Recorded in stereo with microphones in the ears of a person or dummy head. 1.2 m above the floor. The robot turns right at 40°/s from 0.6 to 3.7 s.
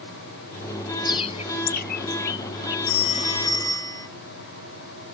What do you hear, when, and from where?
1.1 s a bird: 25° left (ahead or behind); by 2.8 s 65° left (ahead or behind)
2.9 s a phone ringing: 125° left; by 4.1 s 160° left